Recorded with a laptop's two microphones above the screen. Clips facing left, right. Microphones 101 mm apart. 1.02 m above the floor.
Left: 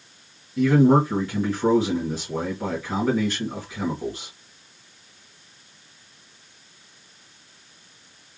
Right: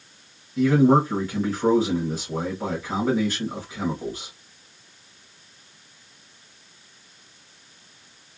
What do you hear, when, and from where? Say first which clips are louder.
0.6 s a man speaking: even; 5° right (ahead or behind), 1.4 m